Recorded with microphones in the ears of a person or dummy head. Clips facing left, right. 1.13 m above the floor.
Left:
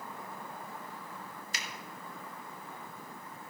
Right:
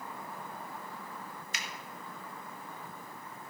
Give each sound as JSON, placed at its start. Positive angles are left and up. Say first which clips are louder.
{"t": 1.5, "sound": "a finger snap", "louder": "left 1 dB", "side_deg": 30, "distance_m": 1.7}